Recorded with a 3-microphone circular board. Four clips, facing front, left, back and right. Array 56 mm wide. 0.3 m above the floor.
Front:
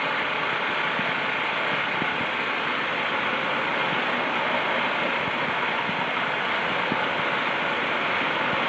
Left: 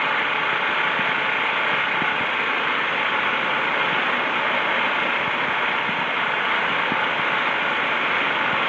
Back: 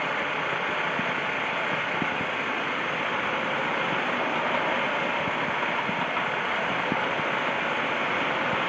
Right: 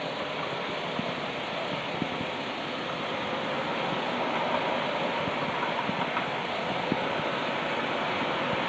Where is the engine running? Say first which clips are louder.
Left 11 dB, front 2 dB; 85° left.